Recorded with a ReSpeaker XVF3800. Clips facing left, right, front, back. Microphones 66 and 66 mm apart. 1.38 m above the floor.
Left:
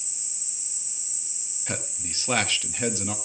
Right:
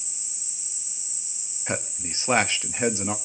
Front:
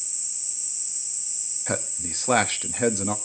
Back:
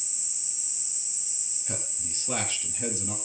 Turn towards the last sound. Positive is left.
turn(degrees=-25)